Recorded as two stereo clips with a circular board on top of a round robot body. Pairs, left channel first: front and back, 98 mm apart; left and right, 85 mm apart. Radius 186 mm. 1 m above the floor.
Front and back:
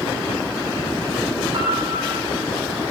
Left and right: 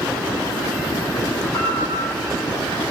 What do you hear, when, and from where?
1.5 s a piano: 150° left, 7.5 m